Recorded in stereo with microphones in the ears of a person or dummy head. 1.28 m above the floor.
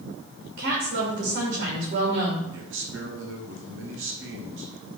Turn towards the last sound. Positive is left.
turn(degrees=-60)  # may be behind; listen again after turning